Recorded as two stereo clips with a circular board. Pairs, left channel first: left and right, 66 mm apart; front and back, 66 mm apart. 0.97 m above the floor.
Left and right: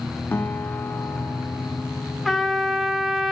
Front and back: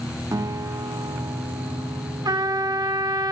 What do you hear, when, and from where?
0.3 s a guitar: 150° left, 2 m
2.2 s a trumpet: straight behind, 1.5 m